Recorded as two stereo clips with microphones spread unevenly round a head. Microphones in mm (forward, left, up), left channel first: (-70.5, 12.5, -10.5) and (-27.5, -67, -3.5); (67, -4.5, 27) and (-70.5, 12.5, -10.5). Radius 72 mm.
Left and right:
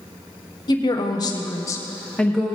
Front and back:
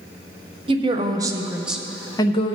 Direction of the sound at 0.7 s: 140° left.